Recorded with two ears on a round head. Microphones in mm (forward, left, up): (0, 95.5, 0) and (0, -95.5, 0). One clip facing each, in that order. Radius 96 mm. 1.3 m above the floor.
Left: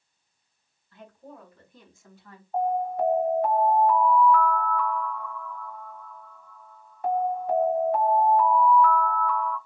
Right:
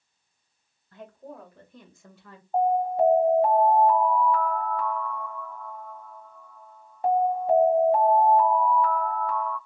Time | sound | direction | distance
0.9 | a woman speaking | 40° right (ahead or behind) | 2.5 m
2.5 | an alarm | 25° right (ahead or behind) | 1.3 m